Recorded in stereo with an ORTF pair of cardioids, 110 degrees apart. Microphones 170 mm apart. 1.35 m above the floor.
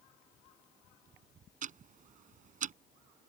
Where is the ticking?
50° right.